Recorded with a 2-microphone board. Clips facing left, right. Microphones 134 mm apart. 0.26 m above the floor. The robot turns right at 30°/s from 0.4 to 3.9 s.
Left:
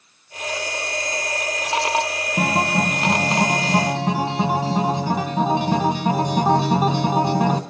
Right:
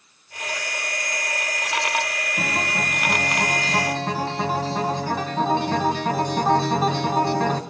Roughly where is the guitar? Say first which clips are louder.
Left 7 dB; behind left.